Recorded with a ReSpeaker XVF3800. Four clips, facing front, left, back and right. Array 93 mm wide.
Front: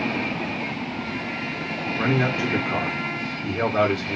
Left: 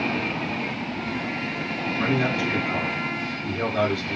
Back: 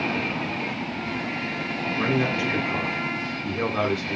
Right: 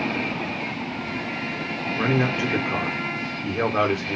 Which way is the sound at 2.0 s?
60° right.